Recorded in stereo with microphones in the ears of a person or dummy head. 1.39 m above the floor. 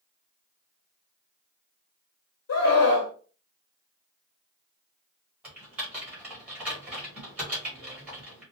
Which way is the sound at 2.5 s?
80° left.